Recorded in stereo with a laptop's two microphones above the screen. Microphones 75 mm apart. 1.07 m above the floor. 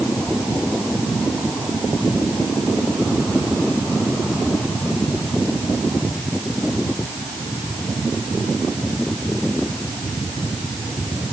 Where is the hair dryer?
No hair dryer in this recording.